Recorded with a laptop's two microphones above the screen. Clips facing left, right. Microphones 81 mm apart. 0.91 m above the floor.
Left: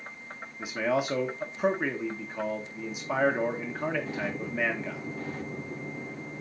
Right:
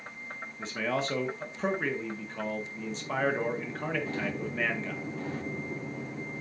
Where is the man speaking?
10° left (ahead or behind), 0.9 m.